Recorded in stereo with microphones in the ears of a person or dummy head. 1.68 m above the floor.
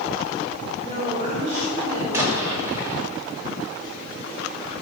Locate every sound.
0.8 s a woman speaking: 30° right (ahead or behind), 6 m; by 2.0 s 45° right (ahead or behind), 6.5 m
2.1 s an explosion: 15° right (ahead or behind), 4.5 m